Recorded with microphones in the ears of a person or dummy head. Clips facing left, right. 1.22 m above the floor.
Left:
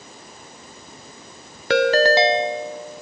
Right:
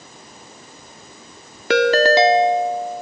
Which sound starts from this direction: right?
A ringtone, at 1.7 s.